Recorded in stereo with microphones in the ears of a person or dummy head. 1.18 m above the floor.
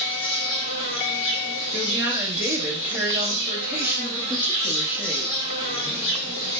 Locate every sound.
0.0 s an insect: 30° left (ahead or behind), 1.3 m
1.7 s a woman speaking: 10° right (ahead or behind), 0.9 m